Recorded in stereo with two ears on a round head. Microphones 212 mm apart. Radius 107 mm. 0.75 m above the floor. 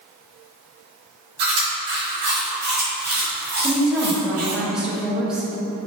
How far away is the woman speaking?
About 0.7 m.